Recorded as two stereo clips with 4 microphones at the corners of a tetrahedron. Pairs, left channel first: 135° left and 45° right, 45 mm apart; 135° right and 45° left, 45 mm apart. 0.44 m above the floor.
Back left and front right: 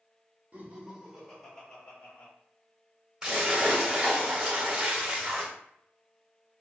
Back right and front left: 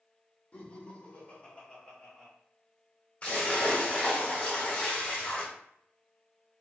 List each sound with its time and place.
0.5 s laughter: 85° right, 1.1 m; by 2.3 s 155° left, 1.1 m
3.2 s a splash: 105° right, 1.6 m